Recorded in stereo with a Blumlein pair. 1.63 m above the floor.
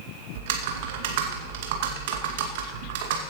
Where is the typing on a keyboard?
50° right, 2 m.